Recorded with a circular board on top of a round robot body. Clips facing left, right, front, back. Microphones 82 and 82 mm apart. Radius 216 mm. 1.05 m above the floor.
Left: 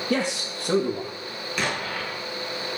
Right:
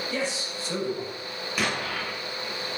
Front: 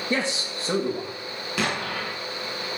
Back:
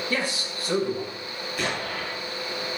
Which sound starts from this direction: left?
A man speaking, at 0.1 s.